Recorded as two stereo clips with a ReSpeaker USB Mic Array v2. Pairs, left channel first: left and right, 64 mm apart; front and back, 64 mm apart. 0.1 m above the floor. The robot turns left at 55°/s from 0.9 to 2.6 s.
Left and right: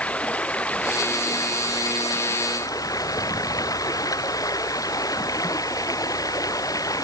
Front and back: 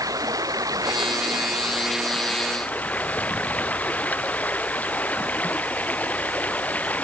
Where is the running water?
160° left; by 7.0 s 65° left.